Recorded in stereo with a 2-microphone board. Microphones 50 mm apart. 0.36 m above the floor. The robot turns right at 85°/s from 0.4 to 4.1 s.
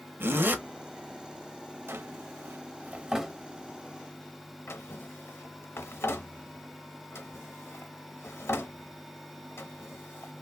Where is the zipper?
50° right (ahead or behind), 0.7 m; by 0.6 s 35° right (ahead or behind), 0.7 m.